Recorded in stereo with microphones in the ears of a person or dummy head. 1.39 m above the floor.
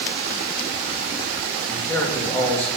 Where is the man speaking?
5° left (ahead or behind), 3 m.